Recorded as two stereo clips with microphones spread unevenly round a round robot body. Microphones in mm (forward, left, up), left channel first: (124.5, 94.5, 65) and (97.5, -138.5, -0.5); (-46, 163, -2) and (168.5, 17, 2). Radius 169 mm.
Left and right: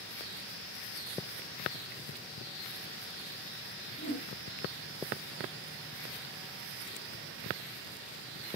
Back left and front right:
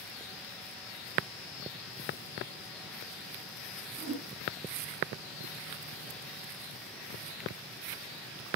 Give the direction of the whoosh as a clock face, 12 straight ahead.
11 o'clock.